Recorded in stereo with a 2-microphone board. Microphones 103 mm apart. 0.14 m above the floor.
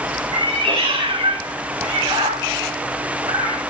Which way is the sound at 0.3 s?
60° right (ahead or behind).